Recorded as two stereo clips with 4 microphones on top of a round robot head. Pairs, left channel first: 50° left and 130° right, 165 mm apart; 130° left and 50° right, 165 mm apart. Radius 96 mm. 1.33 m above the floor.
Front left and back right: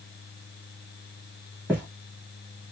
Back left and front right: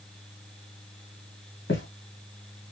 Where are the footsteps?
145° left, 1.7 m.